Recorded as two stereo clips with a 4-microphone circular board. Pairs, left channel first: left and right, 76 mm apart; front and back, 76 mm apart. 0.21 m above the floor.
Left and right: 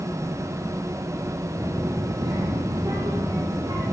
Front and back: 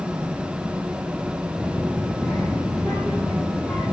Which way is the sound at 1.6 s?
85° right.